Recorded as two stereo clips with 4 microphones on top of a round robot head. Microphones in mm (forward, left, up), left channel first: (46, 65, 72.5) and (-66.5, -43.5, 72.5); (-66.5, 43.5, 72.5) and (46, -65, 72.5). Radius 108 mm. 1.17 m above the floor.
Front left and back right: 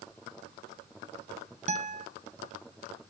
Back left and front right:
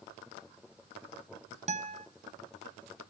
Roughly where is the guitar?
Right.